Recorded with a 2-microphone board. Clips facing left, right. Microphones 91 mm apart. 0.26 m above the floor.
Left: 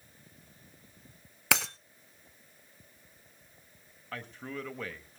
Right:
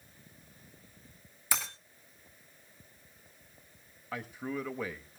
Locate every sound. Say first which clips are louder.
1.5 s breaking glass: left 6 dB; 85° left, 1.0 m
4.1 s a man speaking: right 3 dB; 10° right (ahead or behind), 0.9 m